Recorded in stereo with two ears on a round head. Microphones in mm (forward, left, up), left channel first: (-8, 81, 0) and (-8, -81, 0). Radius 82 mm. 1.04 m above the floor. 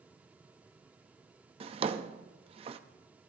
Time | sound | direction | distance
1.6 | a drawer | 30° right (ahead or behind) | 0.6 m